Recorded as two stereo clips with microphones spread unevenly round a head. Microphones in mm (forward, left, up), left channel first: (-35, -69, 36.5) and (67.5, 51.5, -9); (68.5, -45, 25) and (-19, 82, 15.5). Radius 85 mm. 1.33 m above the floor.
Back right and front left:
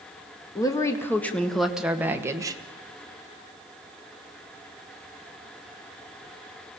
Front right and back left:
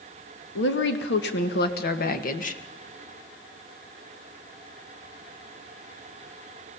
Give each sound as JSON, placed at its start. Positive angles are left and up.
{"t": 0.6, "sound": "a woman speaking", "azimuth_deg": -60, "distance_m": 2.0}